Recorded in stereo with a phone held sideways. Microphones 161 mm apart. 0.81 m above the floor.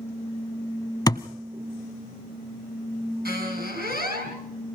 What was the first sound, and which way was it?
A thud, 25° left (ahead or behind).